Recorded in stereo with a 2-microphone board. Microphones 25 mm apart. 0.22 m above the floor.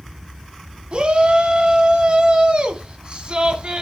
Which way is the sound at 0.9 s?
45° right (ahead or behind).